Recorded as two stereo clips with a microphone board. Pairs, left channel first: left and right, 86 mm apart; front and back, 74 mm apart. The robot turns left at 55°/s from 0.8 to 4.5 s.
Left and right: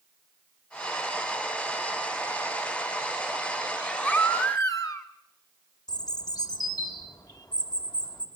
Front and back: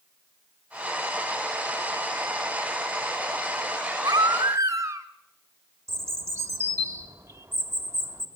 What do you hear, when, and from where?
4.0 s a baby crying: 160° left, 2.5 m; by 5.1 s 135° left, 2.5 m
5.9 s a bird: 130° left, 3 m